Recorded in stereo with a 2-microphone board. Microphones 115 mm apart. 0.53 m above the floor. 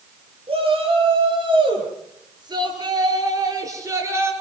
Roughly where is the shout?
Right.